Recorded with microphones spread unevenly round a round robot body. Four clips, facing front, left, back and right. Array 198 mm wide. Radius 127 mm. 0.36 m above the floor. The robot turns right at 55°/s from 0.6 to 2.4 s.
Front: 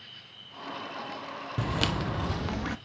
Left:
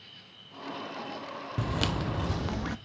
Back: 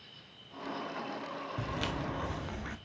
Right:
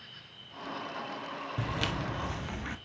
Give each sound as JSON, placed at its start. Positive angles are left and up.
{"t": 0.0, "sound": "an insect", "azimuth_deg": -50, "distance_m": 4.0}
{"t": 1.6, "sound": "footsteps", "azimuth_deg": 10, "distance_m": 0.8}